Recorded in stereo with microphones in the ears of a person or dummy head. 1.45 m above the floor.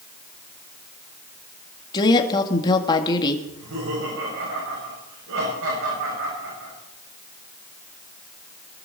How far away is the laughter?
About 7 m.